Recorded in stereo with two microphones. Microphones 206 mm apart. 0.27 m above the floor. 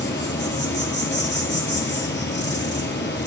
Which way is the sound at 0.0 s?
55° left (ahead or behind).